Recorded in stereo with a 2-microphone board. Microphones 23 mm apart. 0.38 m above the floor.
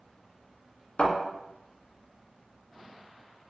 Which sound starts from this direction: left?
A thud, at 1.0 s.